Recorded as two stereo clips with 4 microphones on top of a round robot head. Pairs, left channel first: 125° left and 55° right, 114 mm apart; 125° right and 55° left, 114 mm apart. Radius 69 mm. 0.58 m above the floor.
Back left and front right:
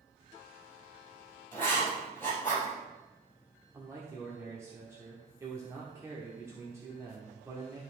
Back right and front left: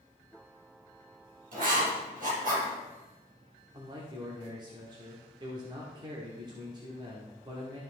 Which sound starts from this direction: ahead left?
Writing, at 1.5 s.